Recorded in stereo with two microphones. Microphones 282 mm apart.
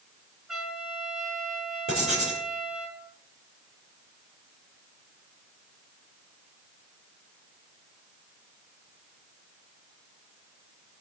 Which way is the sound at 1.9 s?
50° right (ahead or behind).